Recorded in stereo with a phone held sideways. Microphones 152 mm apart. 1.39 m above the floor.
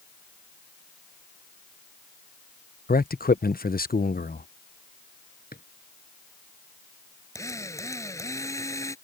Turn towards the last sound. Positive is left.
turn(degrees=20)  # may be behind; listen again after turning